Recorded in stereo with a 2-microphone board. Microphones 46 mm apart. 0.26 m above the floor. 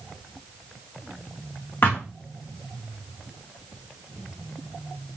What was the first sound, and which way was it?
A thud, 45° left (ahead or behind).